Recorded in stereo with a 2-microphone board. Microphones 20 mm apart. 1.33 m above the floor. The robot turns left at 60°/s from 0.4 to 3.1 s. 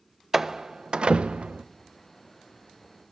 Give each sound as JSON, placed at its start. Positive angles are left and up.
{"t": 0.3, "sound": "a door slam", "side_deg": -20, "distance_m": 0.5}